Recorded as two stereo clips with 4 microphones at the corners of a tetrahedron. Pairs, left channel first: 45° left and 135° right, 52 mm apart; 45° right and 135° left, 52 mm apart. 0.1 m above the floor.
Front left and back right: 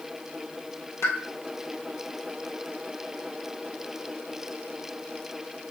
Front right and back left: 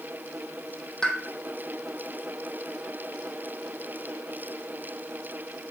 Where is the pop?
30° left, 1.6 m.